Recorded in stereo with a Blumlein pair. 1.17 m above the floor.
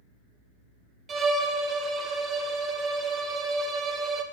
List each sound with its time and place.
1.1 s a violin: 20° right, 0.6 m